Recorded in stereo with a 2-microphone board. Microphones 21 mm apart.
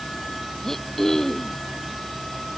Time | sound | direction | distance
0.6 | throat clearing | 20° left (ahead or behind) | ?